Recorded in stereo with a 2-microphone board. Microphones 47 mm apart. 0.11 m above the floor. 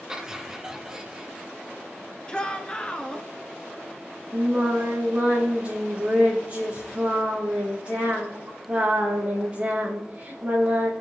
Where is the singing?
30° right (ahead or behind), 5 m.